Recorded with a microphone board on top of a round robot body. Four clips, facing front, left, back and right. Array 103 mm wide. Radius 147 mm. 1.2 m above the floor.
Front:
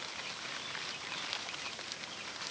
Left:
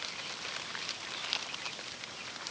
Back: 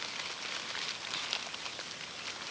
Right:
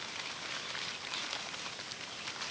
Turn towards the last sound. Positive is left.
No sound to turn to.